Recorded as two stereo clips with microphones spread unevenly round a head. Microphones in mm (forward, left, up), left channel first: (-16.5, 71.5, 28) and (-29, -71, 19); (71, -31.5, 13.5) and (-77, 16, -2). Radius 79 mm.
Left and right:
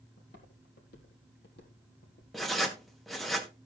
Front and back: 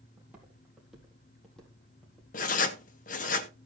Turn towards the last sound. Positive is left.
turn(degrees=0)